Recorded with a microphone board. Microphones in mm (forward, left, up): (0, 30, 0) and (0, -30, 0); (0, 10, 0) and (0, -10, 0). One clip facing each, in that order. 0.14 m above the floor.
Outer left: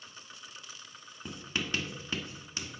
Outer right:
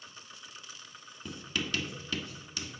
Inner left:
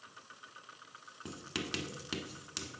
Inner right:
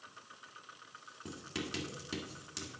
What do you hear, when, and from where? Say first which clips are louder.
1.2 s writing: even, inner left 2 dB; 25° left (ahead or behind), 1.4 m